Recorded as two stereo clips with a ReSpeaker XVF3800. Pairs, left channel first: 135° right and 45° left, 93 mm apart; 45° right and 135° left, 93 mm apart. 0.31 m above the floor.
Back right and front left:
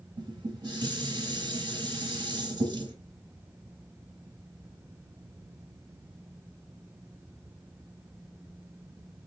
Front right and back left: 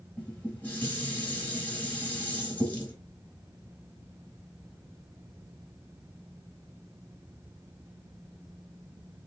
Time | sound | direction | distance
0.2 | dishes clattering | 25° left | 1.4 m